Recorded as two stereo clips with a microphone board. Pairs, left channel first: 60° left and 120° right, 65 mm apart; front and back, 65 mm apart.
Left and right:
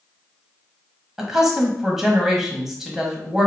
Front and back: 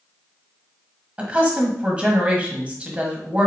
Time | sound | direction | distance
1.2 | a woman speaking | 175° left | 1.1 m